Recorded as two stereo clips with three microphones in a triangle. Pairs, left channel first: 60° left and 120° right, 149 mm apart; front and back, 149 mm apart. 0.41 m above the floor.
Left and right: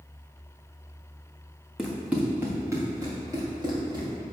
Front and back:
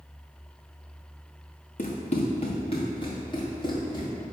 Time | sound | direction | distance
1.8 | running footsteps | 35° right | 1.5 m